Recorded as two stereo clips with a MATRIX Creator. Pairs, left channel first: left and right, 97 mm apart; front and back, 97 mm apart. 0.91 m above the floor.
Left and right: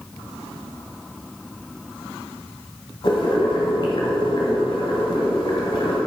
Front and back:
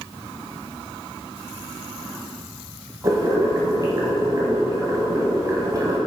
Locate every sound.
3.0 s boiling: 125° left, 2.5 m